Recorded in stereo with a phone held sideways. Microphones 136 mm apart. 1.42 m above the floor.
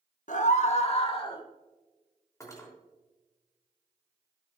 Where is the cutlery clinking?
25° left (ahead or behind), 3 m.